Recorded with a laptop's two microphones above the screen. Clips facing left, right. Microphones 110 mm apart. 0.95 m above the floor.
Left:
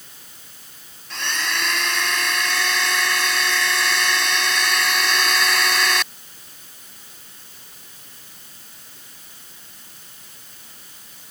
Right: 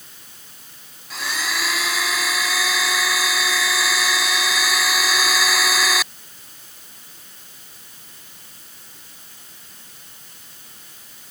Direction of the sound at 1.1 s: 5° right (ahead or behind).